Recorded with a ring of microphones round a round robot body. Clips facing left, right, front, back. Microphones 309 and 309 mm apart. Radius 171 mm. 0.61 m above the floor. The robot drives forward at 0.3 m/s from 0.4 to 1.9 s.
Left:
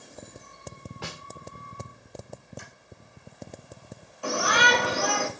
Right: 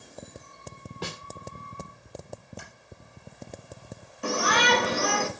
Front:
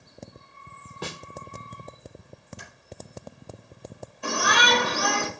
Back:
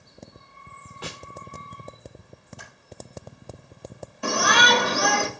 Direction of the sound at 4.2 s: 160° right.